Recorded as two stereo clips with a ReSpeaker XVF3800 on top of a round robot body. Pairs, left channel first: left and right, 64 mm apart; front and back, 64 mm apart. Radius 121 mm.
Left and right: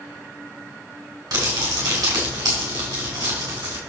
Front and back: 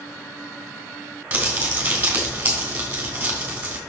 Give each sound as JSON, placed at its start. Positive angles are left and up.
{"t": 1.3, "sound": "crumpling", "azimuth_deg": -115, "distance_m": 3.0}